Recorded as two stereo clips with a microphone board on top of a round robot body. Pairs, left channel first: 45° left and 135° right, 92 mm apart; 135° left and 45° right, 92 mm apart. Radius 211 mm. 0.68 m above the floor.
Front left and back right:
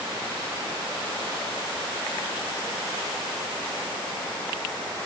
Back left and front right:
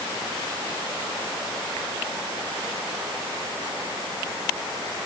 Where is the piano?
I don't hear a piano.